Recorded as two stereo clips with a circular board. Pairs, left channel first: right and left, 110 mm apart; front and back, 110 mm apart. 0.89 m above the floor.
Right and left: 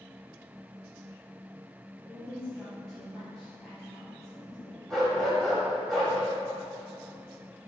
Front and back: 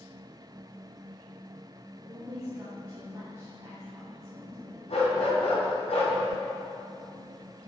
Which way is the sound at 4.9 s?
Straight ahead.